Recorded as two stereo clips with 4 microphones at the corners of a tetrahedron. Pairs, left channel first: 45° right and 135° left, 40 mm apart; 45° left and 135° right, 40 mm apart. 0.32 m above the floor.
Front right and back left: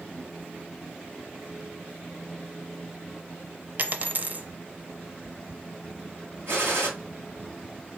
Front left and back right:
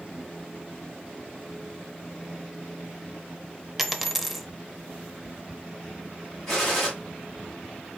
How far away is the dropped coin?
About 0.6 m.